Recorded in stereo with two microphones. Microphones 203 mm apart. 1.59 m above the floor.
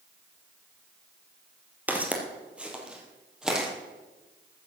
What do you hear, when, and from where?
1.9 s footsteps: 10° right (ahead or behind), 2 m; by 3.7 s 5° right (ahead or behind), 3 m